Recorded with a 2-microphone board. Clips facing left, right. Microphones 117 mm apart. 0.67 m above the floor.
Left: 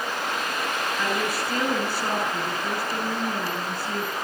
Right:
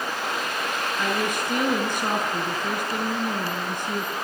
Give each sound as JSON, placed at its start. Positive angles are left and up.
{"t": 1.0, "sound": "a woman speaking", "side_deg": -20, "distance_m": 7.0}